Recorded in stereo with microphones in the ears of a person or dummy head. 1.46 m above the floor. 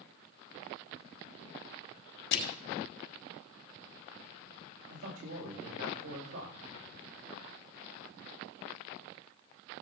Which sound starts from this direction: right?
A man speaking, at 4.9 s.